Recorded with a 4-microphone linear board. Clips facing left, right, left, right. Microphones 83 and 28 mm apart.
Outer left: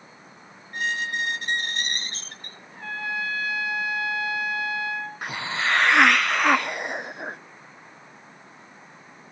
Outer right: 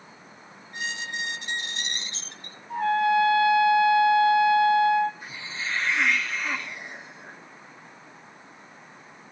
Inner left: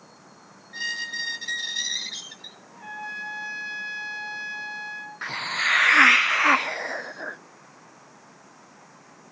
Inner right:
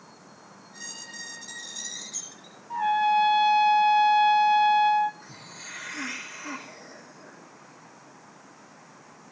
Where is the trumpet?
85° right, 5 m.